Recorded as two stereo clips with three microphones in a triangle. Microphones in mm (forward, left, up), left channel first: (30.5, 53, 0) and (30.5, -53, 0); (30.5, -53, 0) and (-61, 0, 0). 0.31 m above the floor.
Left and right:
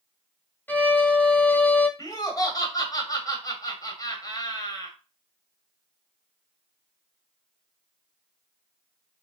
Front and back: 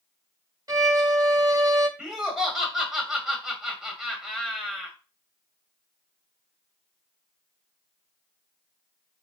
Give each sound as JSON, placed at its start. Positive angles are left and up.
{"t": 0.7, "sound": "a violin", "azimuth_deg": 150, "distance_m": 1.0}
{"t": 2.0, "sound": "laughter", "azimuth_deg": 70, "distance_m": 1.8}